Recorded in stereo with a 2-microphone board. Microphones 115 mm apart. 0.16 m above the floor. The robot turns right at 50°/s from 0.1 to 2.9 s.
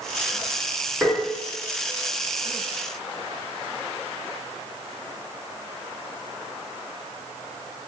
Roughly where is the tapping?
Right.